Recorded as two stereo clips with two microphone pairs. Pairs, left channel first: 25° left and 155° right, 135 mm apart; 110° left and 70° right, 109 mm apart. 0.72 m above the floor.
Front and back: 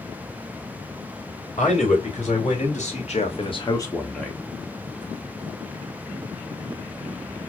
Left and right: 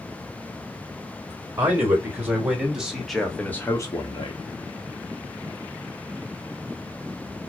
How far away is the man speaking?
About 3.5 m.